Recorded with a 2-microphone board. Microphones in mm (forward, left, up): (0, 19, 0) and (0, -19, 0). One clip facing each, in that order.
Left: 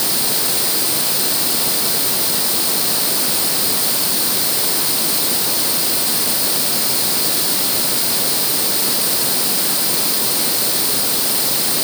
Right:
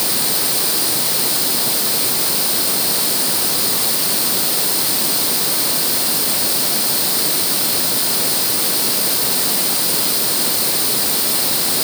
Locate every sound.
Only background noise.